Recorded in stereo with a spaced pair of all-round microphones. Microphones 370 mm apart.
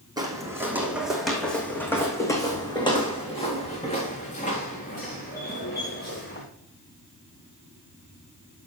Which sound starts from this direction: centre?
Footsteps, at 0.2 s.